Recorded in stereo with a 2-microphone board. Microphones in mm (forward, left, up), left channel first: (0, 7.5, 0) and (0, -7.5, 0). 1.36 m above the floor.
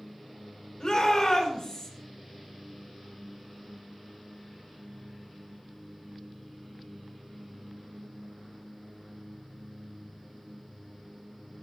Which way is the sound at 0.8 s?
55° left (ahead or behind).